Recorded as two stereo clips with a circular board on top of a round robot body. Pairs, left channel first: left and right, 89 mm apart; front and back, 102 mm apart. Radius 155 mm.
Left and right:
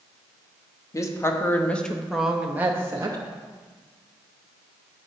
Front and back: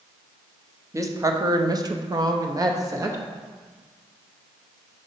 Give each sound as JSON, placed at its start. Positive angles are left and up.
{"t": 0.9, "sound": "a woman speaking", "azimuth_deg": 130, "distance_m": 1.0}